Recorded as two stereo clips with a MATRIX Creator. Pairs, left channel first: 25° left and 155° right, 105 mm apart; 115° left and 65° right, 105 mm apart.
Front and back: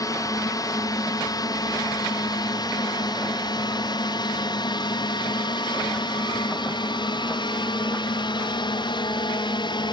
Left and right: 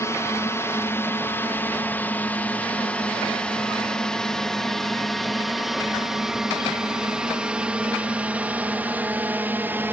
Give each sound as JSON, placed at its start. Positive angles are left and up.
{"t": 0.0, "sound": "a drone", "azimuth_deg": 60}